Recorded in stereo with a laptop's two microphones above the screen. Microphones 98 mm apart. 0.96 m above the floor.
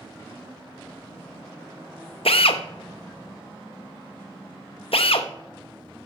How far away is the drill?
About 0.6 m.